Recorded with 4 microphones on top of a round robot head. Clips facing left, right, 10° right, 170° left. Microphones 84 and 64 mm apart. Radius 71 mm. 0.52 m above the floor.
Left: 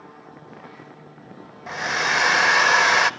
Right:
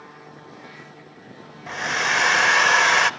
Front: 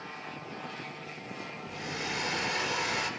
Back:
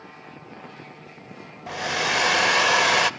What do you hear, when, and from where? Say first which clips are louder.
1.7 s a hair dryer: even, back 13 dB; 175° left, 0.6 m